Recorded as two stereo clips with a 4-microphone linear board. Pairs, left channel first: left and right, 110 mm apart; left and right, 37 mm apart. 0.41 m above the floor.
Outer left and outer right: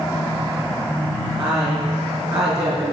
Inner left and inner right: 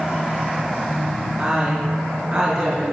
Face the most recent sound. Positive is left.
turn(degrees=-35)  # may be behind; listen again after turning